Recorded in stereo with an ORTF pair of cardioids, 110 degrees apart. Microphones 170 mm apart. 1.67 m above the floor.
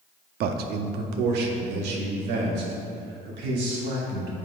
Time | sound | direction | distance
0.4 | a man speaking | 65° right | 0.7 m